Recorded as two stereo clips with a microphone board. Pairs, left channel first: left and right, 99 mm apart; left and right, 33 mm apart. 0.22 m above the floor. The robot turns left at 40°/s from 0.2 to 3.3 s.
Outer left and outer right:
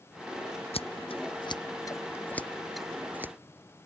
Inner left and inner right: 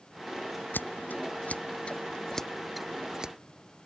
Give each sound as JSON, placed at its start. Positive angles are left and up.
{"t": 0.7, "sound": "scissors", "side_deg": 80}